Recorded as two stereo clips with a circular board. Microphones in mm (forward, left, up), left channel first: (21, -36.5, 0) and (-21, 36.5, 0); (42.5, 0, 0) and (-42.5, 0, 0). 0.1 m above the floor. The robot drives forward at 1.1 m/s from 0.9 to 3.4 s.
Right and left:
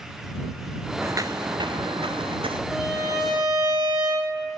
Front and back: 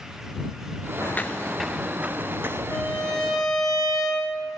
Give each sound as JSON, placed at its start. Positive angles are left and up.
{"t": 1.0, "sound": "footsteps", "azimuth_deg": 60, "distance_m": 0.6}
{"t": 2.7, "sound": "a violin", "azimuth_deg": 70, "distance_m": 2.5}